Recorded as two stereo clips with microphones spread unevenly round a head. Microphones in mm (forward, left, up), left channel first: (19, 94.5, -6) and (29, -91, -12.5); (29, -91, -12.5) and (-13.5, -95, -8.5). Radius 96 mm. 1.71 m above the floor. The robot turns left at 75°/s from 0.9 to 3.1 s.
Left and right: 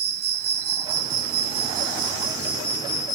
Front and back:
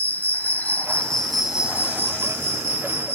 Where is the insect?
50° right, 0.8 m; by 3.1 s 145° left, 0.8 m.